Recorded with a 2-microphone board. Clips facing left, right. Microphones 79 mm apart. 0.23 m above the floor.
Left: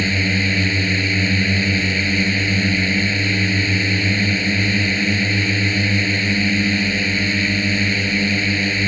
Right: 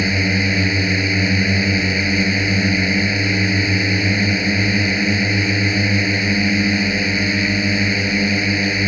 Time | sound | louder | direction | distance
0.0 | a drone | right 1 dB | 15° right (ahead or behind) | ?